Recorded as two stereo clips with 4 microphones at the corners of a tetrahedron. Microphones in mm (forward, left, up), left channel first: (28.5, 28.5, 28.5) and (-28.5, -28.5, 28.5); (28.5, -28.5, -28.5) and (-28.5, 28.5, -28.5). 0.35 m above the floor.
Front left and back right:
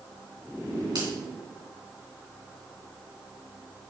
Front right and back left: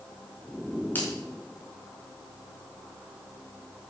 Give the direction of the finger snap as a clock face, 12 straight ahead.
4 o'clock.